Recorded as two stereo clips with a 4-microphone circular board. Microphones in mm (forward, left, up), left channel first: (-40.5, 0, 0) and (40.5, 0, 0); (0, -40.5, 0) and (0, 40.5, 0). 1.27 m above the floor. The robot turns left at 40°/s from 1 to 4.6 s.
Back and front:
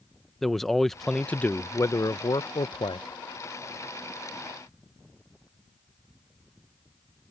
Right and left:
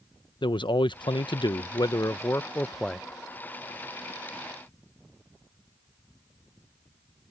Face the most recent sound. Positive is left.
turn(degrees=125)